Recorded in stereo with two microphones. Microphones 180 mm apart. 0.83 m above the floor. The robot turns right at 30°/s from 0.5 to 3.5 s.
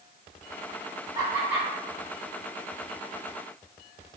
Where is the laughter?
20° right (ahead or behind), 1.6 m; by 1.7 s 5° right (ahead or behind), 1.6 m.